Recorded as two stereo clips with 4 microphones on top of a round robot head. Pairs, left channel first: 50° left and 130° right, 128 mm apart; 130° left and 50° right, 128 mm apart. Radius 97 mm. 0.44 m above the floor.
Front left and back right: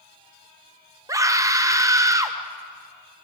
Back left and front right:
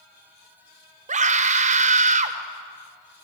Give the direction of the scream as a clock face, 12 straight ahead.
2 o'clock.